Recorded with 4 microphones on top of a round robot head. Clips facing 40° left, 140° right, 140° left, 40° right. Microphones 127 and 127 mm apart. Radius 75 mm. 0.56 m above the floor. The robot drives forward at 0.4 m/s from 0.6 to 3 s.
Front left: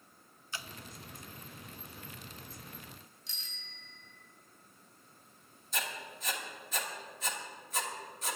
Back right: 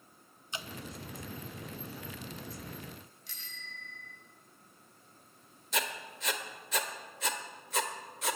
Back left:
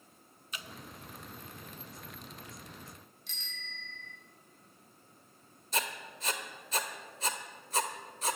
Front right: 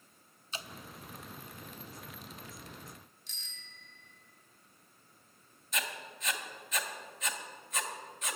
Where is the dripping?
80° right, 0.7 m; by 0.7 s 85° right, 0.7 m.